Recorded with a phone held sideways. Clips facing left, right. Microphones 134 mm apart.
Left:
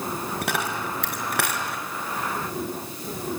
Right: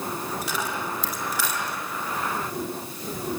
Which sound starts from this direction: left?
A dropped coin, at 0.4 s.